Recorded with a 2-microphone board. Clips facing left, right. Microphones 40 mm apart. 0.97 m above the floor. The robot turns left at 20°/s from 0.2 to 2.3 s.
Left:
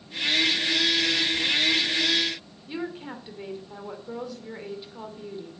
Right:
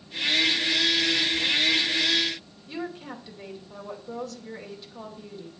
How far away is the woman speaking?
About 2.5 m.